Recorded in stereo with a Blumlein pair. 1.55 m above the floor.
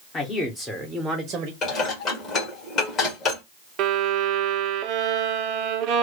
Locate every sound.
0.1 s a man speaking: 20° left, 1.1 m; by 1.5 s 35° right, 0.8 m
1.6 s dishes clattering: 25° left, 1.6 m
3.8 s a violin: 40° right, 0.6 m